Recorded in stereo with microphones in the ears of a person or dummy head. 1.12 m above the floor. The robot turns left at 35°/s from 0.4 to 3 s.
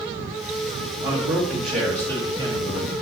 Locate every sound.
1.0 s a man speaking: 155° right, 2.5 m; by 2.9 s 140° left, 2.5 m